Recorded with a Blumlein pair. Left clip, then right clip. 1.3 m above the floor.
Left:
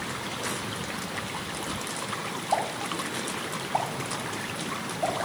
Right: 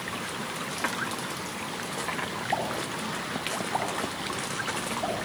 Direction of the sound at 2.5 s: 25° left.